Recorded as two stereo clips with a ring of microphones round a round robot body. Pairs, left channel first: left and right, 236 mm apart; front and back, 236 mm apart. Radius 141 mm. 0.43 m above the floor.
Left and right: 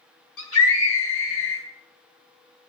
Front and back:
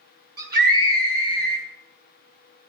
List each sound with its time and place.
0.4 s a scream: 125° left, 4 m